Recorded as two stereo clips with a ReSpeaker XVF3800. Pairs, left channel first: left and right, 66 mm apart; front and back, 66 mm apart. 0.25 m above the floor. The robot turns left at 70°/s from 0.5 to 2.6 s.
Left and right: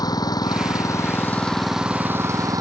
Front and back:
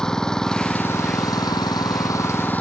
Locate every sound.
0.0 s an engine running: 80° left; by 2.6 s 65° right